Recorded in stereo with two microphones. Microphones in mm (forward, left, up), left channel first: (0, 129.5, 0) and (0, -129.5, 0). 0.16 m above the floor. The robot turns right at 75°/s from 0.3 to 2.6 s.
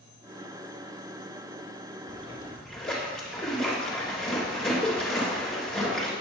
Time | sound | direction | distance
2.1 | a splash | 135° left | 2.5 m